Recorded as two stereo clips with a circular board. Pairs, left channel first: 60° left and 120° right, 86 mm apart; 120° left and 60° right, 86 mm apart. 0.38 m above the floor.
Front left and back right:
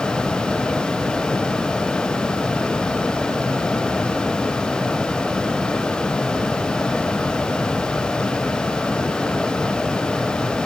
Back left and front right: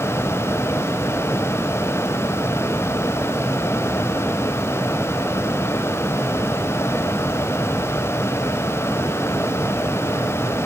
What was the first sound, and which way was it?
Only background noise.